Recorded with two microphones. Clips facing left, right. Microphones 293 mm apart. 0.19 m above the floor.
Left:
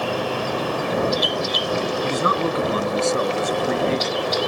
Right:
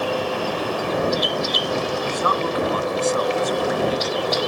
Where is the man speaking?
25° left (ahead or behind); by 4.5 s 30° left (ahead or behind).